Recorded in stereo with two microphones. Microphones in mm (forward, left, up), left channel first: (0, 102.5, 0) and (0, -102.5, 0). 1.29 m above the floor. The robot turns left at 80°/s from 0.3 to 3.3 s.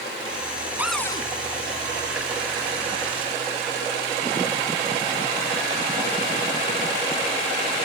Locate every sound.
0.8 s a cupboard door: 170° right; by 1.3 s 150° left